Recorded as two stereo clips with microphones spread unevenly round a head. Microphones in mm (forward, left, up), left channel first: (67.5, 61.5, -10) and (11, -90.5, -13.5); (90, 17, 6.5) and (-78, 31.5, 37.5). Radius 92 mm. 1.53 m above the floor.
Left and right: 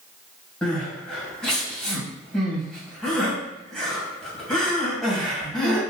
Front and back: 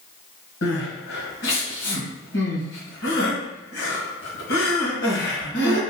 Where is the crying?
15° right, 1.9 m.